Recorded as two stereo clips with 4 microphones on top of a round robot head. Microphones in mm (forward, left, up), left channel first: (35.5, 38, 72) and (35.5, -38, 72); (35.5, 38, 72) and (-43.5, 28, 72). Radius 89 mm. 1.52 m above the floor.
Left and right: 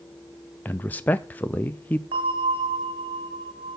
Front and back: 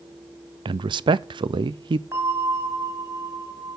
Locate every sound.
0.7 s a man speaking: 160° left, 0.6 m
2.1 s a bell: 110° right, 3 m